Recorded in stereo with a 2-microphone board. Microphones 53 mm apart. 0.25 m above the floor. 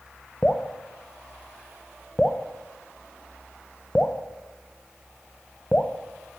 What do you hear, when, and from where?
0.4 s dripping: 20° left (ahead or behind), 0.7 m